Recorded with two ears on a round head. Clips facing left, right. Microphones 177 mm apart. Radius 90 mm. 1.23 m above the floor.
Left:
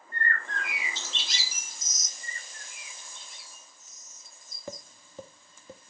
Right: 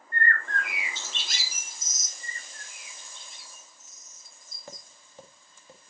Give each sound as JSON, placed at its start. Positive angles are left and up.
{"t": 0.1, "sound": "a bird", "side_deg": -40, "distance_m": 2.0}
{"t": 2.2, "sound": "a bird", "side_deg": -85, "distance_m": 7.5}
{"t": 4.7, "sound": "tapping", "side_deg": 70, "distance_m": 1.6}